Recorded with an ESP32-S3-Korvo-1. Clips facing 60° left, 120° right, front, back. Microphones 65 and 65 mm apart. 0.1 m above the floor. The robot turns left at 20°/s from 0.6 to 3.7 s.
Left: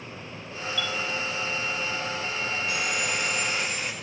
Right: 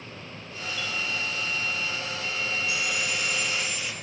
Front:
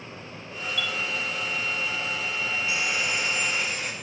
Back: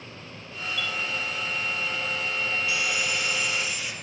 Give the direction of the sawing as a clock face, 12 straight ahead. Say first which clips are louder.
Left 1 dB, even; 10 o'clock.